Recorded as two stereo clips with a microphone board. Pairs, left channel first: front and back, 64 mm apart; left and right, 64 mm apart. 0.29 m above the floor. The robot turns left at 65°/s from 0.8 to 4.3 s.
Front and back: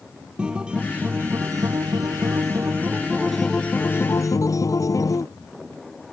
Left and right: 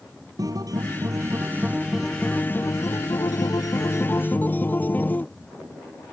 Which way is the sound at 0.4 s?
105° right.